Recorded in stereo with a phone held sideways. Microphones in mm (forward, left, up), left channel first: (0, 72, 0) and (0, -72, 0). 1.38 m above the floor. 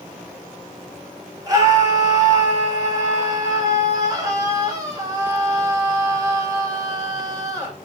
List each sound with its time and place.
1.5 s a scream: 25° right (ahead or behind), 4.5 m